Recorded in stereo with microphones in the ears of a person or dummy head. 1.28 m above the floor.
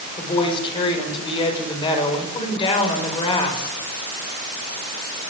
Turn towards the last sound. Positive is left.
turn(degrees=25)  # may be behind; listen again after turning